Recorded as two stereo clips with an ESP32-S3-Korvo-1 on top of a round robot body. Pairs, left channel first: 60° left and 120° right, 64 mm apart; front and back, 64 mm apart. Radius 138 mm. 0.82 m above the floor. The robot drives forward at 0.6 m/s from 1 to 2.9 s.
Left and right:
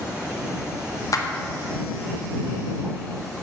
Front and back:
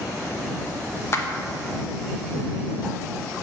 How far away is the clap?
About 1.2 m.